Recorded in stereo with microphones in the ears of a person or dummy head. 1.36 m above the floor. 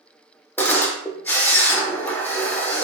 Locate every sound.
0.6 s a camera shutter: 15° left (ahead or behind), 0.5 m